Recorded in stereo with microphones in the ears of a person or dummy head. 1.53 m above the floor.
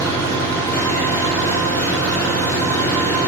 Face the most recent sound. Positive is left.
turn(degrees=10)  # may be behind; listen again after turning